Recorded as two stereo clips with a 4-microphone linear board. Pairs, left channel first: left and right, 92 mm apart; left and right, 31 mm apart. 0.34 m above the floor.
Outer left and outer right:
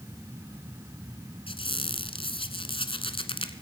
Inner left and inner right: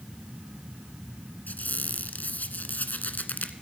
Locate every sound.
1.5 s a squeak: 80° left, 1.3 m